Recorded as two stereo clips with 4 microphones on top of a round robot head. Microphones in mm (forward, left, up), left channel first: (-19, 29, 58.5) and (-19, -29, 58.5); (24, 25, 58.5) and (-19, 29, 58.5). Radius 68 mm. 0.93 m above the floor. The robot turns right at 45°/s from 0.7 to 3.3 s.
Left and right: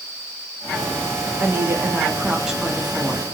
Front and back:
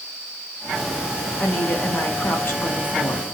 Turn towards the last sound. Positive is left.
turn(degrees=25)